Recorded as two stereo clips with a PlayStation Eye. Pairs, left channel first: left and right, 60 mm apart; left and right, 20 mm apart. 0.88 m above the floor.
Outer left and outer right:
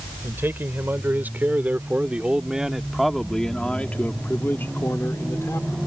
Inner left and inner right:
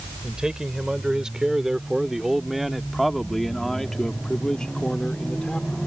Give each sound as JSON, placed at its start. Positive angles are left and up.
{"t": 0.2, "sound": "a man speaking", "side_deg": -45}